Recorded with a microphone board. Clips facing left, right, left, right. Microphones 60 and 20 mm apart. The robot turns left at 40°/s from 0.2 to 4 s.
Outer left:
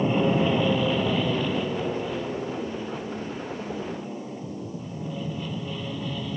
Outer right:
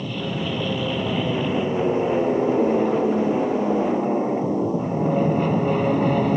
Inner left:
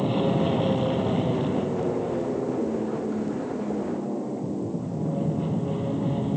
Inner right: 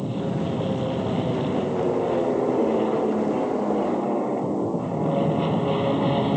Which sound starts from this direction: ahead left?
An aircraft, at 0.0 s.